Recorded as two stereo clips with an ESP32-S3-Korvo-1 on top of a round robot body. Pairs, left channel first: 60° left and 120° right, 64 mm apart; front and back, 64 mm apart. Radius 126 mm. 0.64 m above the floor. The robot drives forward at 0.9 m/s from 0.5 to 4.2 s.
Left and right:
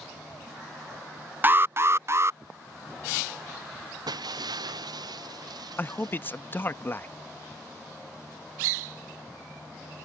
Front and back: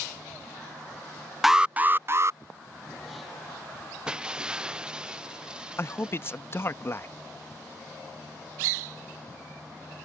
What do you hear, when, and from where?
1.4 s an alarm: 95° right; by 2.4 s 155° right
4.1 s breaking glass: 100° right; by 6.4 s 105° right
5.8 s a man speaking: 25° left